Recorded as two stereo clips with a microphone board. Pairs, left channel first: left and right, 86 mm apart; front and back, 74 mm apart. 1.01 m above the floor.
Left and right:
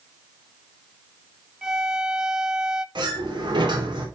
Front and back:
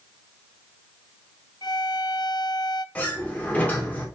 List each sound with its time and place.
1.6 s a violin: 10° right, 0.5 m
3.0 s a sliding door: 65° right, 3 m